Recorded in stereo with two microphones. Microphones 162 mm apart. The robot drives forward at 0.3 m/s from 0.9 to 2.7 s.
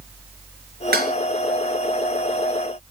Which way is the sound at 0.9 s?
75° right (ahead or behind).